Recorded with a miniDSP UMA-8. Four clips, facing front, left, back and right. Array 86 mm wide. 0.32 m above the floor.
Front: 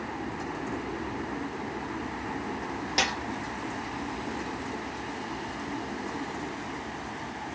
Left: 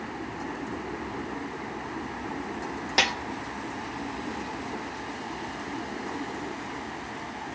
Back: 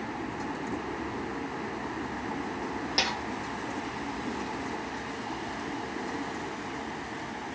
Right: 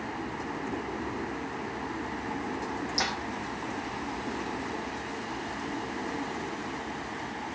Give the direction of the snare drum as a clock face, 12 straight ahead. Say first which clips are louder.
Left 7 dB, front 3 dB; 9 o'clock.